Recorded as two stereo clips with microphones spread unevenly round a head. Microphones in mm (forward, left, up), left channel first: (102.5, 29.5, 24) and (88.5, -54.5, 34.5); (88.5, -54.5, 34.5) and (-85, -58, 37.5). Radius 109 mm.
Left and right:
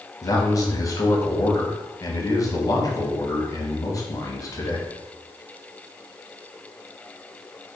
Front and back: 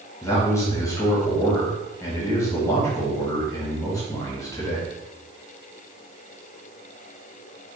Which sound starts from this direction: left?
A man speaking, at 0.2 s.